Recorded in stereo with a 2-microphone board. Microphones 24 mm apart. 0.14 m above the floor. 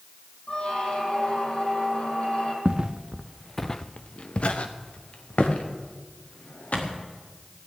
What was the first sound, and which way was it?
A squeak, 45° left (ahead or behind).